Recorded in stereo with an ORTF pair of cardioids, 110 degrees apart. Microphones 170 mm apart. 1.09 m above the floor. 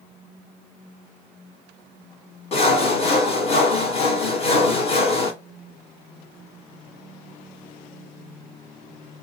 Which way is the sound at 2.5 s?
35° left.